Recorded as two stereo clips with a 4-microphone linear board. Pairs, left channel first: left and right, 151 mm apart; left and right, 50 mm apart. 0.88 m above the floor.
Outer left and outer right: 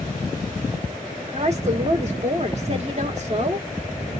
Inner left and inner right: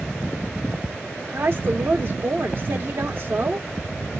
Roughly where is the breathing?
Right.